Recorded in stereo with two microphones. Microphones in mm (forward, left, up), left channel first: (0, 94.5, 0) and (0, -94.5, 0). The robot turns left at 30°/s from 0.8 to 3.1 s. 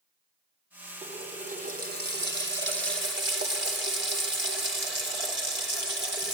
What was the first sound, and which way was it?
A running tap, 30° right.